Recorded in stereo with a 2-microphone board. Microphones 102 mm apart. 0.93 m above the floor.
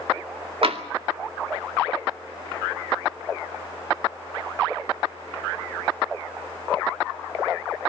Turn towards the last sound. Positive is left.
turn(degrees=-65)  # may be behind; listen again after turning